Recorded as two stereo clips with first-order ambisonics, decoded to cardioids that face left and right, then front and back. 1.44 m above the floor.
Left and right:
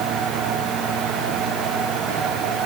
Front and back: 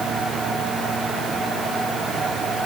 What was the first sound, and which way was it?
Only background noise.